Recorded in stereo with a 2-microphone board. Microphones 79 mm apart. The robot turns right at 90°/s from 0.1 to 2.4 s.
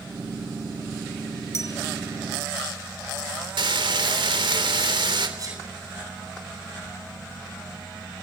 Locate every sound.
1.5 s a bell: 40° left (ahead or behind), 2 m; by 1.8 s 55° left (ahead or behind), 2 m
3.6 s frying: 85° right, 3 m
5.4 s a sneeze: 50° right (ahead or behind), 9 m